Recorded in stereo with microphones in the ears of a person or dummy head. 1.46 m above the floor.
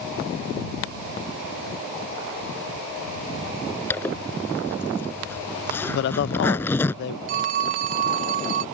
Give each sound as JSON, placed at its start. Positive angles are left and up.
{"t": 3.9, "sound": "a zipper", "side_deg": 10}
{"t": 5.9, "sound": "a man speaking", "side_deg": 60}
{"t": 7.3, "sound": "a phone ringing", "side_deg": -45}